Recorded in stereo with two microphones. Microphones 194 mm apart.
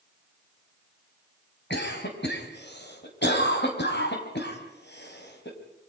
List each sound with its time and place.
1.7 s a cough: 75° left (ahead or behind), 4 m